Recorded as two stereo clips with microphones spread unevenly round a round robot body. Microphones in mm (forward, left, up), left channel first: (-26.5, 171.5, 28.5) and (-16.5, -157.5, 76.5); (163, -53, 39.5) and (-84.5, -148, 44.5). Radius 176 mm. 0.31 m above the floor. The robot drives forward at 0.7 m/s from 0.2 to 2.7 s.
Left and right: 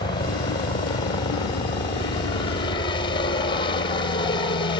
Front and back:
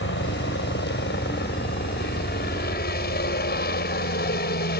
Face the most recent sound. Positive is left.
turn(degrees=40)